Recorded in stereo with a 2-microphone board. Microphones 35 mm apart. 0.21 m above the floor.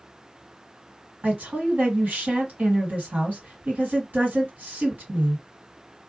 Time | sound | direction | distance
1.2 | a woman speaking | 55° right (ahead or behind) | 2 m